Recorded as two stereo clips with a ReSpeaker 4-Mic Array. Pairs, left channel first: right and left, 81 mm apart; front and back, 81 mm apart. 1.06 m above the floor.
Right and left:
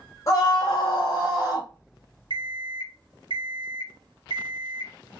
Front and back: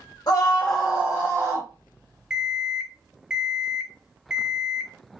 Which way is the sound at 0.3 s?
40° right.